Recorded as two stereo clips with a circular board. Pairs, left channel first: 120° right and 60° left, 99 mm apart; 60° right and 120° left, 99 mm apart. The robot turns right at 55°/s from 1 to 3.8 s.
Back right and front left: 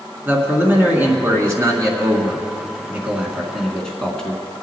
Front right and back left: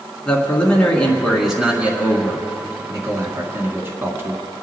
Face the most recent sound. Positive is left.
turn(degrees=165)